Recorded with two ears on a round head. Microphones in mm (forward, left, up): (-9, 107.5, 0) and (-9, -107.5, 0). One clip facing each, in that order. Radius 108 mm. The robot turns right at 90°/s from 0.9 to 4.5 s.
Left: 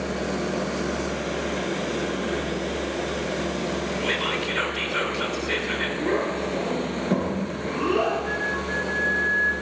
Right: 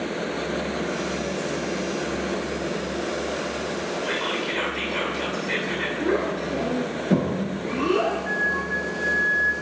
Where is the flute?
35° right (ahead or behind), 0.7 m.